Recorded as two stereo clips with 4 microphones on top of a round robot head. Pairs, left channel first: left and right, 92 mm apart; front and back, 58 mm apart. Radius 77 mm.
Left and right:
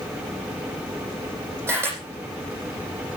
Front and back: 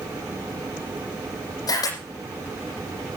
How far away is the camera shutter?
About 8.5 m.